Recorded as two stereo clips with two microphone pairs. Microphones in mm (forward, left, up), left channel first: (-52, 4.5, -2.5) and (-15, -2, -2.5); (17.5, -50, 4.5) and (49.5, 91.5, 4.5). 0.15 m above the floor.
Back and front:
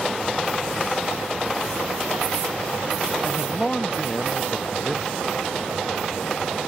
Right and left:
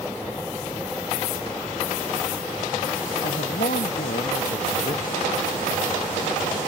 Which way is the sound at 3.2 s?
115° right.